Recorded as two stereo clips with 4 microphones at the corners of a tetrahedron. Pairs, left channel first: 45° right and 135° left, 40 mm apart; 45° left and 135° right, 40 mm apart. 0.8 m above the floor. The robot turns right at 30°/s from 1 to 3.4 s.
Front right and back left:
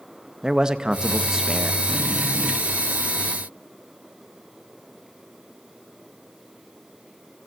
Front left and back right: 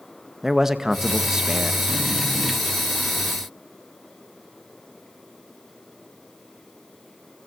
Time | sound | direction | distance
0.4 | a man speaking | 160° left | 0.8 m